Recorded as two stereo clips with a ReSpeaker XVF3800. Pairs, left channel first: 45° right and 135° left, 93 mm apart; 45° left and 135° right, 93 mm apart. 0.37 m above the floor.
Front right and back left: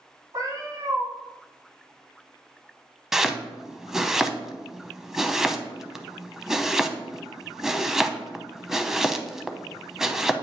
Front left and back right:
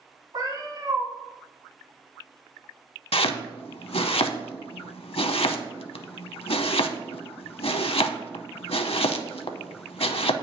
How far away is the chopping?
About 0.5 m.